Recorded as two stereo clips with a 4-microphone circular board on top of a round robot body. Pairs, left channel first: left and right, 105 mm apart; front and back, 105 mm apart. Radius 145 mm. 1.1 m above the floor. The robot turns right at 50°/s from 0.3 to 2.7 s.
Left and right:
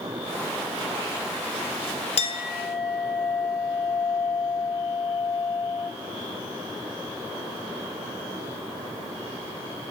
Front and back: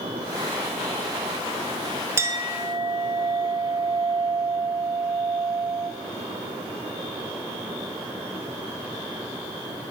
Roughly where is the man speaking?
I don't hear a man speaking.